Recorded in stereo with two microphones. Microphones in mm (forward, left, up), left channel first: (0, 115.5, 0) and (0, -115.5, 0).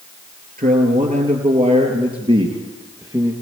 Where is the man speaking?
40° right (ahead or behind), 3 m; by 3.3 s 15° right (ahead or behind), 3.5 m.